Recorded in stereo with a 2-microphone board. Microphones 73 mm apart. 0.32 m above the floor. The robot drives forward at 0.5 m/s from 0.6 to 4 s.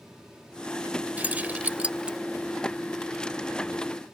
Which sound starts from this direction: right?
Keys jangling, at 1.2 s.